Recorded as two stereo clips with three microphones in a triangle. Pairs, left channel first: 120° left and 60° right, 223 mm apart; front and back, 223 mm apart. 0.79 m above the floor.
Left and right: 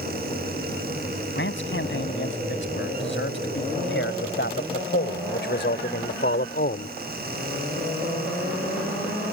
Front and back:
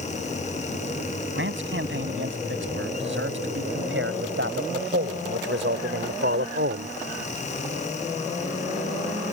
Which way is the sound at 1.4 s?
150° left.